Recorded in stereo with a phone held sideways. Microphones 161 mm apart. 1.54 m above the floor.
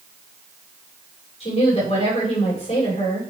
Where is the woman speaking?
40° left (ahead or behind), 5.5 m.